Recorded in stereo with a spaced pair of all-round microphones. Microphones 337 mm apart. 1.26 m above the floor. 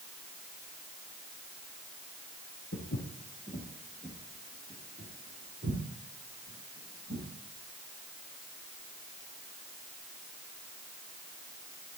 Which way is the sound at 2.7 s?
40° left (ahead or behind).